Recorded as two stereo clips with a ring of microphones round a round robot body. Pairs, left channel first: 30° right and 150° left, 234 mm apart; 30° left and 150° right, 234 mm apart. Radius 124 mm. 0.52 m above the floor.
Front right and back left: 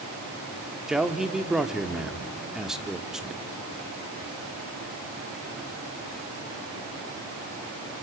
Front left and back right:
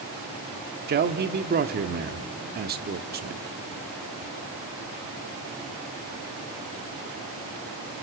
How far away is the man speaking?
About 1.0 m.